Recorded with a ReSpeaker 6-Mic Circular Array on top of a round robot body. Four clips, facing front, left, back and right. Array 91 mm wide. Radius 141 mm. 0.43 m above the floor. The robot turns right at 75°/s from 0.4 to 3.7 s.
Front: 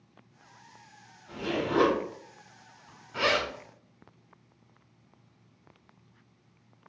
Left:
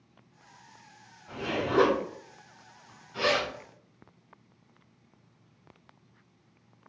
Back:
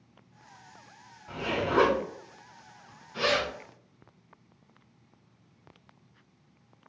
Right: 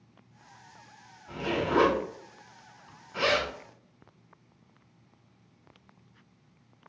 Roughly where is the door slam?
I don't hear a door slam.